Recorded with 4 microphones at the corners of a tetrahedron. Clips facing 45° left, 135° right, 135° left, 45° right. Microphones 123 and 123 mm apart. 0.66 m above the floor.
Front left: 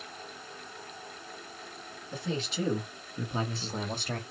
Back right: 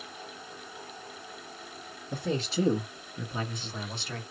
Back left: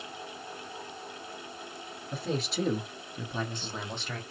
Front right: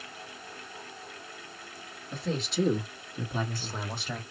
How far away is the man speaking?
About 1.5 m.